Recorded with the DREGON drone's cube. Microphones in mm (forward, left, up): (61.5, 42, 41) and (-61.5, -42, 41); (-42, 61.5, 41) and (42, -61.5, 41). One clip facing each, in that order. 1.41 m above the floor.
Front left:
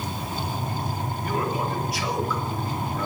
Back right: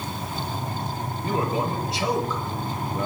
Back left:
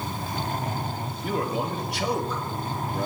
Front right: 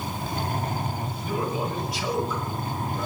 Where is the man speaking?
150° left, 2.5 m.